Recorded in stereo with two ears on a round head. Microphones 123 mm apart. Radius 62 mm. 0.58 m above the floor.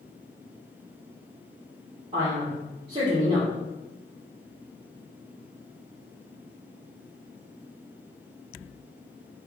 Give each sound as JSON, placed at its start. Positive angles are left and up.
{"t": 2.1, "sound": "a man speaking", "side_deg": -40, "distance_m": 1.2}